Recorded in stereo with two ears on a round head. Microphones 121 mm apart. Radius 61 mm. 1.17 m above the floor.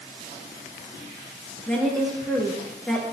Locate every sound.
1.7 s a woman speaking: 5° left (ahead or behind), 1.6 m